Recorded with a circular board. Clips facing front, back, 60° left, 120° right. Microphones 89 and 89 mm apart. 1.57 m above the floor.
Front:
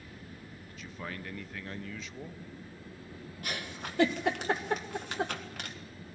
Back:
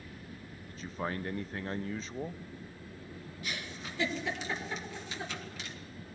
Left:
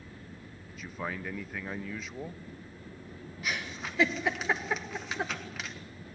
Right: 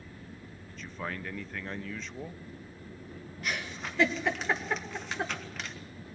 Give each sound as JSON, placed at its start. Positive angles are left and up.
{"t": 0.7, "sound": "a man speaking", "azimuth_deg": 140, "distance_m": 0.5}
{"t": 3.4, "sound": "a giggle", "azimuth_deg": -30, "distance_m": 1.7}